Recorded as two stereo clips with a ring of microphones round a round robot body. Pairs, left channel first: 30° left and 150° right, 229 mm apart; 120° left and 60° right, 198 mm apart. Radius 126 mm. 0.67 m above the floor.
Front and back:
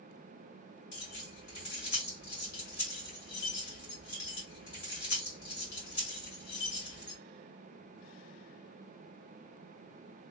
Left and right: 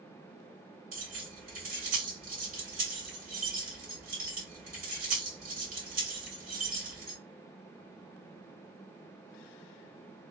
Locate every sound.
0.9 s keys jangling: 15° right, 2.0 m